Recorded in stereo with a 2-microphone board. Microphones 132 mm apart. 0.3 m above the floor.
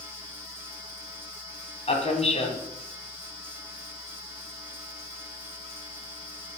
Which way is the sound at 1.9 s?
50° left (ahead or behind).